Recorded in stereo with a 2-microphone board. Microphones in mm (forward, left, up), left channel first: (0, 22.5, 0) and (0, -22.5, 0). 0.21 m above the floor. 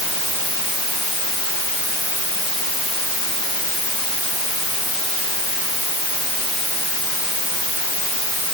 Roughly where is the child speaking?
I don't hear a child speaking.